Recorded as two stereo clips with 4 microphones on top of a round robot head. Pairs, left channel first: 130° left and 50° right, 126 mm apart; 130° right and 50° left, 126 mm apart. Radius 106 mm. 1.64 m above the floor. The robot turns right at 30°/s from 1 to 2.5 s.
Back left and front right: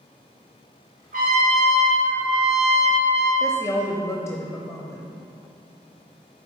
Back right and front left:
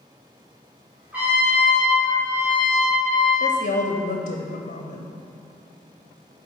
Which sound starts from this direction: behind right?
A woman speaking, at 3.4 s.